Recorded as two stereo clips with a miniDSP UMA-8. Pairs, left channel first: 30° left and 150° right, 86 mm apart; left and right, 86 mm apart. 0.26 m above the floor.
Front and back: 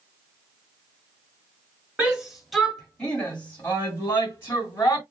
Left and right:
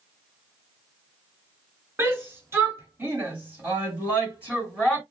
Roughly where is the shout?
Right.